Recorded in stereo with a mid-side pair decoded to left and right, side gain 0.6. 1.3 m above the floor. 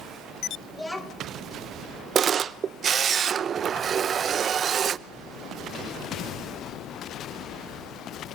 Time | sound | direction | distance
0.7 | a child speaking | 15° left | 3 m
2.1 | a camera shutter | 40° right | 0.6 m